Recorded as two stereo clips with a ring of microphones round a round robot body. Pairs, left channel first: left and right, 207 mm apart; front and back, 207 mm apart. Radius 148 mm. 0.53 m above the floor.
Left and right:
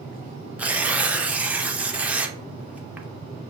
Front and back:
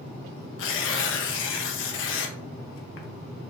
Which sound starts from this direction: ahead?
Tearing paper, at 0.6 s.